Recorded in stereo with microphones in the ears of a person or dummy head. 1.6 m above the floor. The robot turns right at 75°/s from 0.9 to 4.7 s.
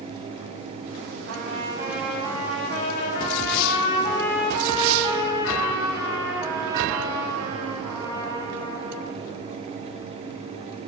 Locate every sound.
1.3 s a trumpet: 60° right, 9 m; by 9.1 s 165° right, 9 m